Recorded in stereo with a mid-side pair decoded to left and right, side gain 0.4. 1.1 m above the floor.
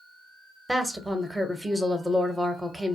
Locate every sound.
0.7 s a woman speaking: 5° right, 0.8 m